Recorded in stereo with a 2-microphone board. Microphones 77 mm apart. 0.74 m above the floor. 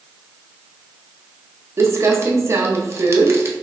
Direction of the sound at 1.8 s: 40° right (ahead or behind).